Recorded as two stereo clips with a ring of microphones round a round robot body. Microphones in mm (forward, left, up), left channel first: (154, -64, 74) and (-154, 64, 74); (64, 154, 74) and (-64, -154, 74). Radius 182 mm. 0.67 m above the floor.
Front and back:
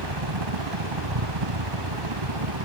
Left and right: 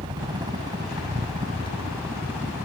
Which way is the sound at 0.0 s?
170° left.